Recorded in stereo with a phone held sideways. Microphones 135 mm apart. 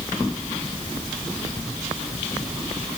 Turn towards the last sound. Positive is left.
No sound to turn to.